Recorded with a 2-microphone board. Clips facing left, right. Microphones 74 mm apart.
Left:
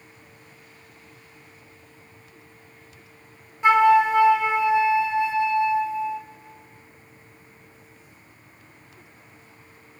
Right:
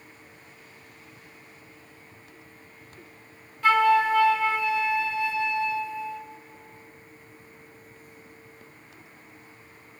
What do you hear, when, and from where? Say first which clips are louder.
3.6 s a flute: left 4 dB; 20° left (ahead or behind), 1.2 m